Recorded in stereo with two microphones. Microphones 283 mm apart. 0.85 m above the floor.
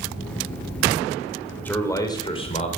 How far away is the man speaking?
About 3.5 m.